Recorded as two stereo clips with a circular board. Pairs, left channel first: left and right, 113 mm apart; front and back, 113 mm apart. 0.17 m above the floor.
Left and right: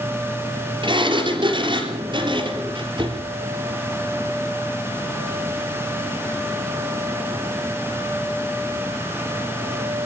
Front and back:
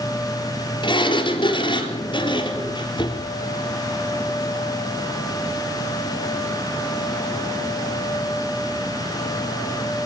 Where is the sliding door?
45° right, 3.5 m.